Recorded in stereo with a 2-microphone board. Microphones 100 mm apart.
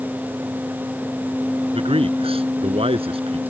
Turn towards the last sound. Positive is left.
turn(degrees=-65)  # may be behind; listen again after turning